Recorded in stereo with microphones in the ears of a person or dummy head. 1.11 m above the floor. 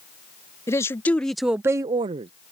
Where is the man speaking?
15° left (ahead or behind); by 2.3 s 35° right (ahead or behind).